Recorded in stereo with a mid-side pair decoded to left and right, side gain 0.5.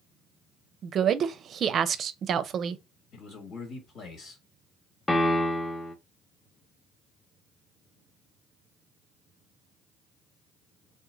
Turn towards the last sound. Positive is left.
turn(degrees=15)